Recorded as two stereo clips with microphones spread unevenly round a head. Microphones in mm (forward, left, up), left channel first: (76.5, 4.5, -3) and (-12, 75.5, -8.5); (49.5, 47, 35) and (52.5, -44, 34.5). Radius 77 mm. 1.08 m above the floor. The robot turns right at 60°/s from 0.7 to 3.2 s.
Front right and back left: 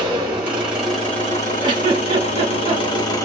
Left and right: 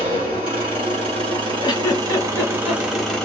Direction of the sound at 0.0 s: 140° right.